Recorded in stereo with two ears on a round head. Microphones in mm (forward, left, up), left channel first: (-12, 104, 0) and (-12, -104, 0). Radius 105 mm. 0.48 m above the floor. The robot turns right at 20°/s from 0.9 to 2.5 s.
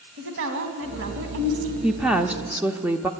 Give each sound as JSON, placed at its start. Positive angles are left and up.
{"t": 0.2, "sound": "a woman speaking", "side_deg": -60, "distance_m": 3.0}
{"t": 1.8, "sound": "a woman speaking", "side_deg": -5, "distance_m": 0.7}